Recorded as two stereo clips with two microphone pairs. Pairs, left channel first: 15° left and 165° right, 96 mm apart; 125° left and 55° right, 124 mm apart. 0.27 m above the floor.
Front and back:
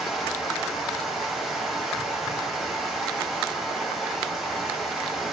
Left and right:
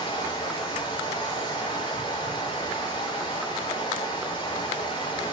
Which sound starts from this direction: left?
Running water, at 0.0 s.